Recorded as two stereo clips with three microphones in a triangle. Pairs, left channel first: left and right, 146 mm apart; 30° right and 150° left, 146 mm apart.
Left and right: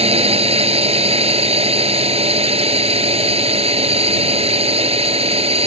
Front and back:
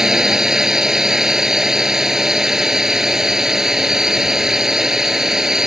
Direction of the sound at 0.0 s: 125° right.